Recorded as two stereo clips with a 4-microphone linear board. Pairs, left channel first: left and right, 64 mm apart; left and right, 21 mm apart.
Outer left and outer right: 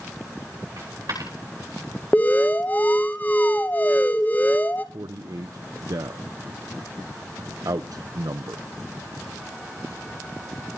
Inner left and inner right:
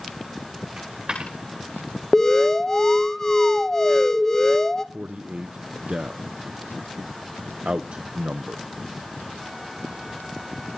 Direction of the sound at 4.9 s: 65° right (ahead or behind).